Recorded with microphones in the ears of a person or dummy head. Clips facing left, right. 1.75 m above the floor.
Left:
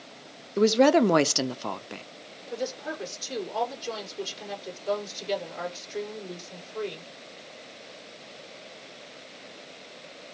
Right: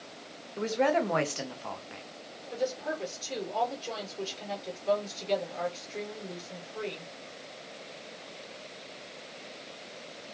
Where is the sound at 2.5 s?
15° left (ahead or behind), 5 m.